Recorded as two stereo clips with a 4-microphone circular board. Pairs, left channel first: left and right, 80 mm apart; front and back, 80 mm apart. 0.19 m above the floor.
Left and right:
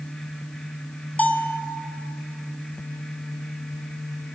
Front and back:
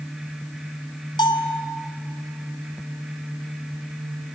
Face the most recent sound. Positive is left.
turn(degrees=20)